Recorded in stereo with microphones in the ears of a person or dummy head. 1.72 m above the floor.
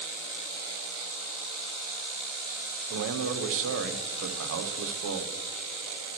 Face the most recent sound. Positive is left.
turn(degrees=-75)  # may be behind; listen again after turning